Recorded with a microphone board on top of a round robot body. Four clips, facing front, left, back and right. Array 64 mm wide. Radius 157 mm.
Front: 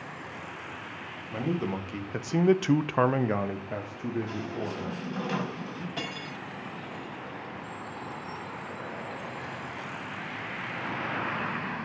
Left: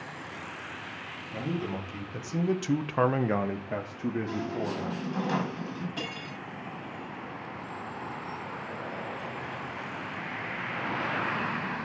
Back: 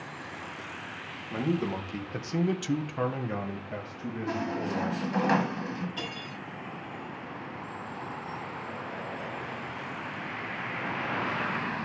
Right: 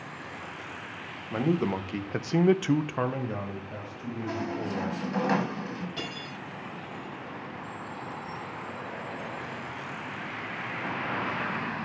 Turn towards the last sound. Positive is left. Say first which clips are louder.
# even, front 1 dB
turn(degrees=-5)